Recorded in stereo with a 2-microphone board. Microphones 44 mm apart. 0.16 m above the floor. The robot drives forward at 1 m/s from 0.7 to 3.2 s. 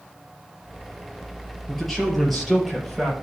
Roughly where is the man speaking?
Centre.